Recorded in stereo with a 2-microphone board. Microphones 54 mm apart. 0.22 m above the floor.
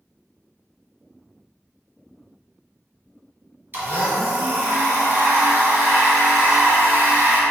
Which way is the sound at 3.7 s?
40° right (ahead or behind).